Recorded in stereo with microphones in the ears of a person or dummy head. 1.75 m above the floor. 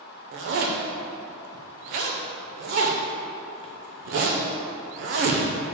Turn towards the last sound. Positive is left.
turn(degrees=-50)  # may be behind; listen again after turning